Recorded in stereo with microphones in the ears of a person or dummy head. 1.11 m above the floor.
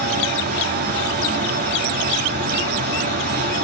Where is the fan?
50° right (ahead or behind), 1.2 m.